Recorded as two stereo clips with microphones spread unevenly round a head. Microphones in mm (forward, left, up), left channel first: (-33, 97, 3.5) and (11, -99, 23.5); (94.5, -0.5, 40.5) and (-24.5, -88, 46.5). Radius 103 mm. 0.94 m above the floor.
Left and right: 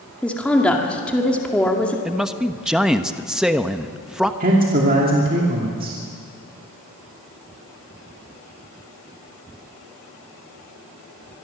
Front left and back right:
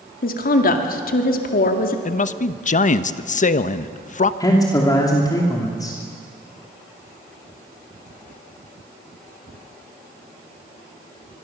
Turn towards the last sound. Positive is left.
turn(degrees=-30)